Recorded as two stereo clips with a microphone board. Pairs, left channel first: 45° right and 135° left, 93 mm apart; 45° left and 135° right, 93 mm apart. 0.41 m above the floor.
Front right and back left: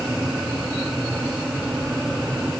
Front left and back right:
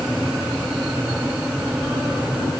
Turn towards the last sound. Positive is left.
No sound to turn to.